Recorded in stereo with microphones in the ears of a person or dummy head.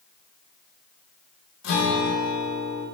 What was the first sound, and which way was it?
A guitar, 85° left.